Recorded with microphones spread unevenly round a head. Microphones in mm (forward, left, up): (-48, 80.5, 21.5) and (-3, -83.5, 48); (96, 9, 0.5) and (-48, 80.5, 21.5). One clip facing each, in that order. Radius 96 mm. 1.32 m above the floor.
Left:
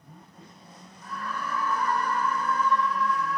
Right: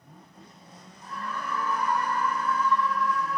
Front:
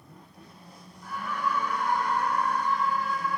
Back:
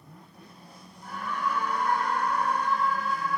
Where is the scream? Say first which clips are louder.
Left 1 dB, even; 135° right, 6 m; by 3.4 s 165° right, 6.5 m.